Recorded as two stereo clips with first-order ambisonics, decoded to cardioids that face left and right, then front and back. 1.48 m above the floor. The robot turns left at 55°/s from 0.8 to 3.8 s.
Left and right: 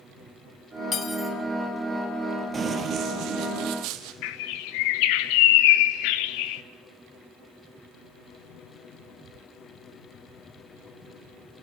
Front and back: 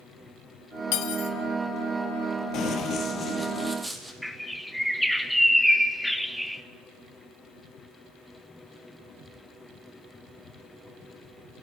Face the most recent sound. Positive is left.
turn(degrees=90)